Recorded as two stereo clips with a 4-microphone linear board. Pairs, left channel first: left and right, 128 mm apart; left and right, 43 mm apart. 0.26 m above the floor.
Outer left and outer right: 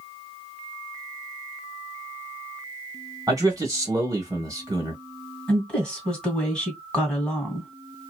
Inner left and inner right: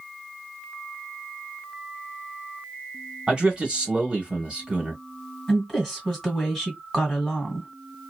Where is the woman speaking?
5° left (ahead or behind), 1.8 m.